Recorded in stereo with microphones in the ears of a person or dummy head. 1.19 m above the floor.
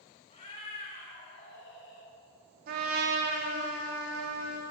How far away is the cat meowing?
About 1.4 m.